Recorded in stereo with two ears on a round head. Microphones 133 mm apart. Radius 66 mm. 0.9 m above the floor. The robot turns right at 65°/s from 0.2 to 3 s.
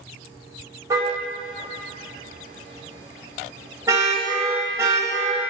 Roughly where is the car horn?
Right.